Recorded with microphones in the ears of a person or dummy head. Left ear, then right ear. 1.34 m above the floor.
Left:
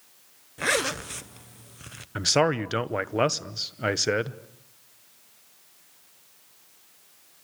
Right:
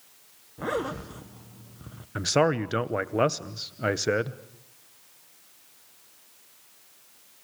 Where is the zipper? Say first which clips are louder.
Left 5 dB; 55° left (ahead or behind), 0.8 m.